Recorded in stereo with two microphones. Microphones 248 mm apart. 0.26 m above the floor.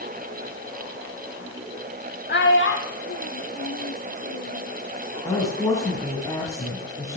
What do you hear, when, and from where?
2.3 s a child speaking: 50° left (ahead or behind), 0.7 m; by 4.7 s 70° left (ahead or behind), 2.5 m
5.2 s a woman speaking: 15° left (ahead or behind), 2.5 m